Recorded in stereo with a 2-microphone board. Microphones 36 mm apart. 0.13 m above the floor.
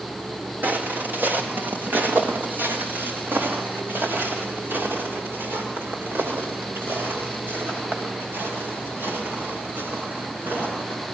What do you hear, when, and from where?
0.6 s footsteps: 50° right (ahead or behind), 4 m; by 11.0 s 80° right, 14.5 m